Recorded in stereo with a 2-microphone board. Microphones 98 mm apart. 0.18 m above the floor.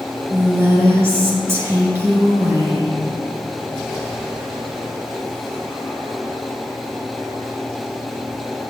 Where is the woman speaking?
25° right (ahead or behind), 2 m.